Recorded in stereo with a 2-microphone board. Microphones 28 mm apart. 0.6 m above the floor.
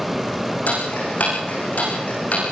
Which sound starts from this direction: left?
Ticking, at 0.7 s.